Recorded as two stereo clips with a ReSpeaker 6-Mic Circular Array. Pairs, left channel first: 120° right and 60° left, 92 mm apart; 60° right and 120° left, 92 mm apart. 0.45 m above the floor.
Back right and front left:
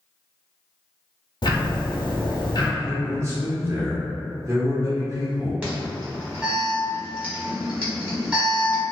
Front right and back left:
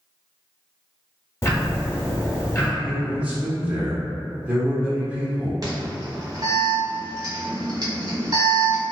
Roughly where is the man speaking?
Ahead left.